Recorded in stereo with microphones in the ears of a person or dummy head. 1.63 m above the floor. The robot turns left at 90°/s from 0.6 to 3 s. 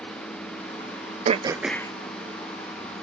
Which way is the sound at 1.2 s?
140° right.